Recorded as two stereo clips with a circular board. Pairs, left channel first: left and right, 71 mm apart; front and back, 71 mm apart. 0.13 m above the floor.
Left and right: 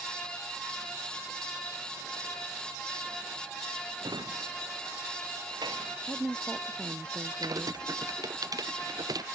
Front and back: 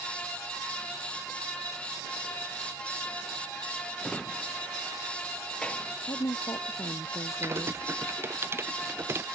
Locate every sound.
4.0 s a drawer: 75° right
6.1 s a woman speaking: 15° right
7.4 s typing on a keyboard: 120° right